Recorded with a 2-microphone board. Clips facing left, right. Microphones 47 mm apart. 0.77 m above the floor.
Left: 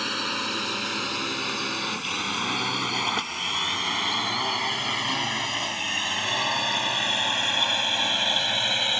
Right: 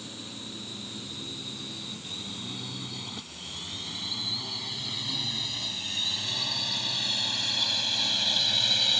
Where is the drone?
60° left (ahead or behind); by 9.0 s 30° left (ahead or behind).